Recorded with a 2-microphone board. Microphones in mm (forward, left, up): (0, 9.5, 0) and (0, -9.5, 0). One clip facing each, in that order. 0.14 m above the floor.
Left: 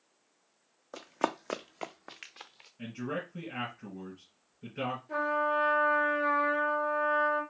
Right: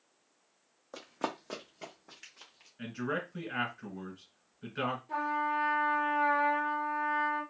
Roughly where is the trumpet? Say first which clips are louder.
Left 5 dB; centre.